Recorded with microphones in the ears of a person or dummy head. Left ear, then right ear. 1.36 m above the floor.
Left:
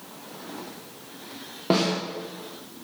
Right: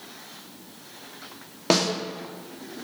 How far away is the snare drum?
About 2.5 m.